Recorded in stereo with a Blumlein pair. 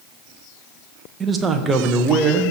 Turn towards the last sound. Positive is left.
turn(degrees=-20)